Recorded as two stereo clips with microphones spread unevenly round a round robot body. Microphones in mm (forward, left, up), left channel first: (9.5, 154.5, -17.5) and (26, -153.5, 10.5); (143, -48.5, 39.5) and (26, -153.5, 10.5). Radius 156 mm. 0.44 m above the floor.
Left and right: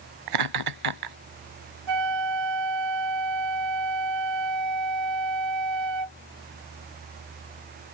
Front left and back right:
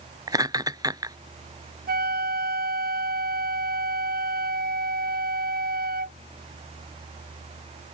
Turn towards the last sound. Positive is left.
turn(degrees=-115)